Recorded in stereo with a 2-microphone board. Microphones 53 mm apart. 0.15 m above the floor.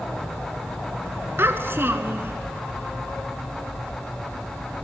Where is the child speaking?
45° right (ahead or behind), 1.3 m.